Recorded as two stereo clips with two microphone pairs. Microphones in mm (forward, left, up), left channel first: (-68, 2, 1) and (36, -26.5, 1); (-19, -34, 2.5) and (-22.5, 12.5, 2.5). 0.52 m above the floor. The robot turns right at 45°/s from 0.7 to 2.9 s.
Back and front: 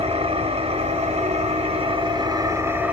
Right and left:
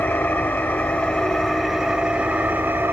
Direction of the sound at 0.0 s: 40° right.